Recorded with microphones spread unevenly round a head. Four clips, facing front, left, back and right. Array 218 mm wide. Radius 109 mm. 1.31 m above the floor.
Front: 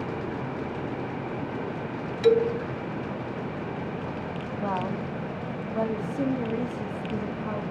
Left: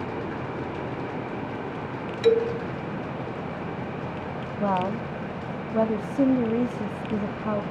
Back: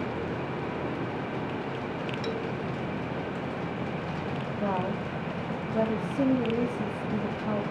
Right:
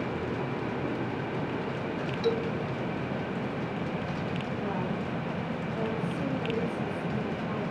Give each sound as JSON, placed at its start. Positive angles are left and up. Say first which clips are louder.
{"t": 2.2, "sound": "a man speaking", "louder": "left 9 dB, front 16 dB", "azimuth_deg": 45, "distance_m": 0.6}
{"t": 4.6, "sound": "a woman speaking", "louder": "left 10 dB, front 1 dB", "azimuth_deg": 105, "distance_m": 3.0}